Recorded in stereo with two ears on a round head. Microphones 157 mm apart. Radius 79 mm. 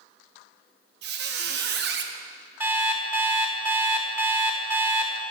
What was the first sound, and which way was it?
A squeak, 65° right (ahead or behind).